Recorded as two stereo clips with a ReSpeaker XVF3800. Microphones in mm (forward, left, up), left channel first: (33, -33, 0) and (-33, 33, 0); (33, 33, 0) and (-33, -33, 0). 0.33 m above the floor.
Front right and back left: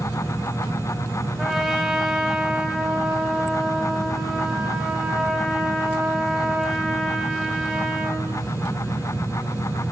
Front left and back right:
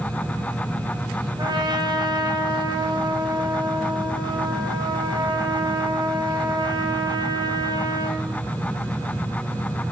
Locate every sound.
1.4 s a trumpet: 145° right, 2 m